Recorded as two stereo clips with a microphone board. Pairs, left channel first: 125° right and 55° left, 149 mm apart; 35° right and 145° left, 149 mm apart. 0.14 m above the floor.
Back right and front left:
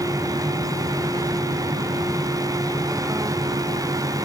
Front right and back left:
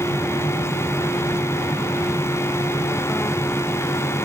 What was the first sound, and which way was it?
Only background noise.